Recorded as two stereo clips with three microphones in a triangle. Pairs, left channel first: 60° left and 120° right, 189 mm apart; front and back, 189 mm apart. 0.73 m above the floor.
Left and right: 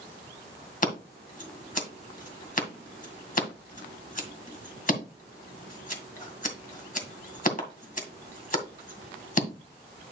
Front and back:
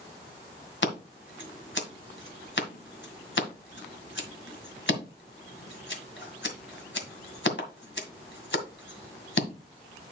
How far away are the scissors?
About 2 m.